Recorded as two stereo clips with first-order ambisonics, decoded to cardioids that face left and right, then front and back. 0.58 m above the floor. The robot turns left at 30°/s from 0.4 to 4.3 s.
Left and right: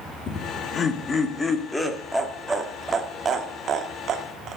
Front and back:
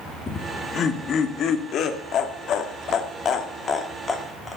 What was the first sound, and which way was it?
Laughter, 50° left.